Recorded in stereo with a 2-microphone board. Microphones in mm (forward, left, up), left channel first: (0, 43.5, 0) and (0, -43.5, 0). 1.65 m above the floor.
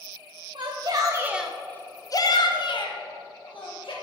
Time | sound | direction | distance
0.6 | a shout | 55° right (ahead or behind) | 0.9 m